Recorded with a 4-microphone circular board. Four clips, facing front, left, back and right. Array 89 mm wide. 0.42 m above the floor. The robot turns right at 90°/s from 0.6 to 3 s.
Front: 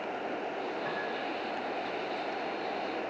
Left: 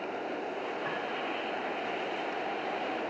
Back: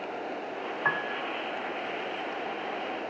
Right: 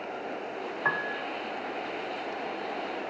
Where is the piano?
145° right, 1.7 m; by 1.2 s 110° right, 1.7 m.